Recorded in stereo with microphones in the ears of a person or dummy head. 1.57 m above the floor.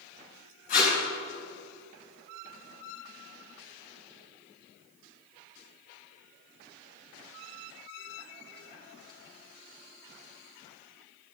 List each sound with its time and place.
0.7 s tape being pulled: 45° left (ahead or behind), 4 m